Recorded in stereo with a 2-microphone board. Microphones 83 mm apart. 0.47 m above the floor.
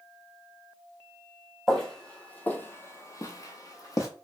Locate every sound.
1.7 s footsteps: centre (ahead or behind), 0.9 m; by 4.1 s 40° left (ahead or behind), 0.9 m